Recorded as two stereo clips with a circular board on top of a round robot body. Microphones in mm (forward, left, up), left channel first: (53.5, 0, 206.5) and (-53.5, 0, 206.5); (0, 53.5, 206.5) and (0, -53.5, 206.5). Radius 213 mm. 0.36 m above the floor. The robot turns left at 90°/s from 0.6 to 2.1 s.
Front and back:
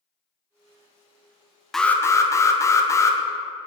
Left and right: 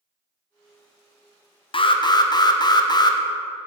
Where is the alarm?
85° left, 0.8 m; by 3.2 s 55° left, 0.8 m.